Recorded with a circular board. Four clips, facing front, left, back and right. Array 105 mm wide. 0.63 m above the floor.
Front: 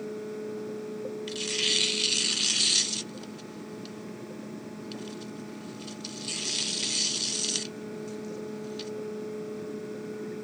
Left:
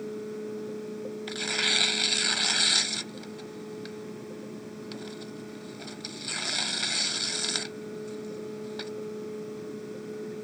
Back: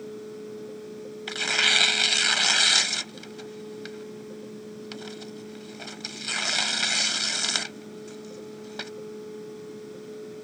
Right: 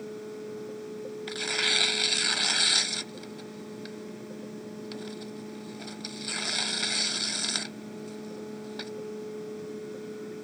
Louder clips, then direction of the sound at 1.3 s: Right 1 dB, back 5 dB; 175° right.